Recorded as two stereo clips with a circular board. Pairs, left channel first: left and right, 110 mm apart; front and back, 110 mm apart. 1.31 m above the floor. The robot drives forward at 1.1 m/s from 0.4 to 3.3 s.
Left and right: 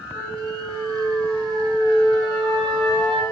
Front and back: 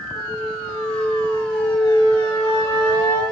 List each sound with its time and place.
0.1 s a flute: 35° right, 6 m; by 3.2 s 65° right, 4 m